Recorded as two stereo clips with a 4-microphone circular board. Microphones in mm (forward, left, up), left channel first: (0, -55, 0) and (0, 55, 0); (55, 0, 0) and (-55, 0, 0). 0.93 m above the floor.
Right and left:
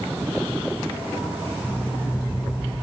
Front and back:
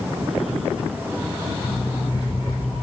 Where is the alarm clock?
40° right, 3.5 m.